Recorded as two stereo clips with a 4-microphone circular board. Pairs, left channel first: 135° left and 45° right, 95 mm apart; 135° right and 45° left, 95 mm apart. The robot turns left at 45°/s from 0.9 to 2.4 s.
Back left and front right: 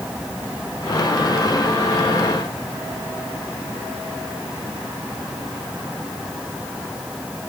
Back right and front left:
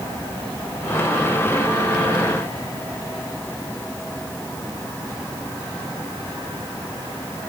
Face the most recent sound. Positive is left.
No sound to turn to.